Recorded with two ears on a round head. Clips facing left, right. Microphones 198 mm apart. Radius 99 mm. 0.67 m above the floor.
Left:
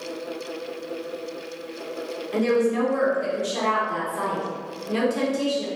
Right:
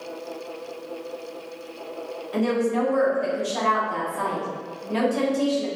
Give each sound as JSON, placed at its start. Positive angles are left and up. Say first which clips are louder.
{"t": 2.3, "sound": "a woman speaking", "louder": "left 2 dB", "side_deg": 45, "distance_m": 1.6}